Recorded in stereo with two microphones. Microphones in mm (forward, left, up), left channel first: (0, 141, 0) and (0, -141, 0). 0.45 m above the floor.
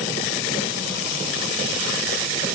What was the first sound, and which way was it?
Only background noise.